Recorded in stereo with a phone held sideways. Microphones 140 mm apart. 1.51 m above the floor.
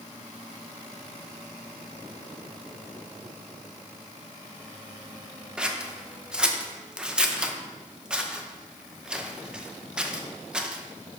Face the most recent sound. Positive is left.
turn(degrees=-5)  # may be behind; listen again after turning